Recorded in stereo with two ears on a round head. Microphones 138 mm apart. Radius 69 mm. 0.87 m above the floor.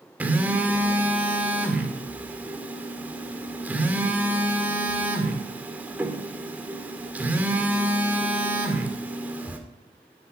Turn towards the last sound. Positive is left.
turn(degrees=-10)  # may be behind; listen again after turning